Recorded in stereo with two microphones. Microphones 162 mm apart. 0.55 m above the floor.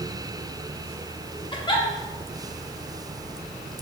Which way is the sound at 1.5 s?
30° left (ahead or behind).